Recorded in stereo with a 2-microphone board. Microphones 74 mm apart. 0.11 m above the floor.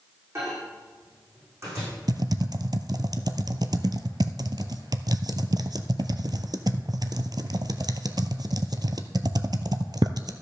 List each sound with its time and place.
0.3 s a microwave: 40° right (ahead or behind), 6 m
2.1 s typing on a keyboard: 65° right (ahead or behind), 0.6 m